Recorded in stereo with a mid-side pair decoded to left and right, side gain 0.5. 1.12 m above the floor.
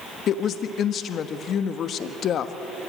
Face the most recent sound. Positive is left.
turn(degrees=55)